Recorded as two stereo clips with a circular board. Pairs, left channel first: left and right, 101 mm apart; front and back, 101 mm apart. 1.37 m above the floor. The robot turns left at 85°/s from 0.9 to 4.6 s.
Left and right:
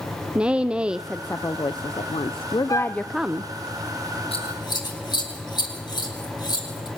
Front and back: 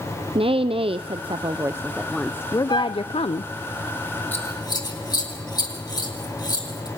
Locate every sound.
0.3 s a woman speaking: 170° right, 0.6 m; by 3.5 s 30° right, 0.6 m
2.7 s a flute: 40° left, 1.0 m; by 3.0 s 10° left, 1.0 m
4.3 s scissors: 70° left, 4 m; by 6.9 s 45° left, 4 m